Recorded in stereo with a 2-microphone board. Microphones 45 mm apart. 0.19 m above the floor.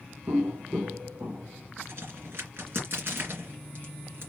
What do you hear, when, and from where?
0.3 s footsteps: 75° right (ahead or behind), 0.8 m; by 1.7 s 35° right (ahead or behind), 1.5 m
1.8 s a crack: 55° right (ahead or behind), 2.5 m